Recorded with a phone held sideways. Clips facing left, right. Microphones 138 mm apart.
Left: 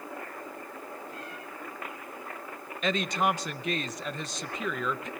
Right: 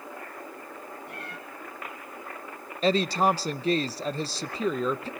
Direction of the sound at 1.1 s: 75° right (ahead or behind).